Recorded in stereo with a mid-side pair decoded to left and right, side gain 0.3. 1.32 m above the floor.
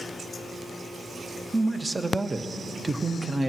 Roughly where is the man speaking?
Ahead right.